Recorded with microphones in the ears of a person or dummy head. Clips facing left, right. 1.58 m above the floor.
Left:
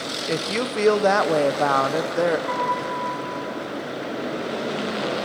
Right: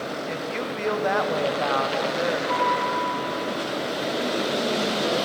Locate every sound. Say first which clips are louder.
0.3 s a woman speaking: left 4 dB; 55° left (ahead or behind), 0.8 m
2.5 s a piano: right 1 dB; 50° left (ahead or behind), 6.5 m